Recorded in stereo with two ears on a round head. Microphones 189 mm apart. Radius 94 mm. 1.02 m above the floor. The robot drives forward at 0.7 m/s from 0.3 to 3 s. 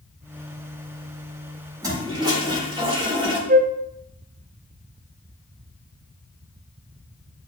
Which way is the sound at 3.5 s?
40° right (ahead or behind).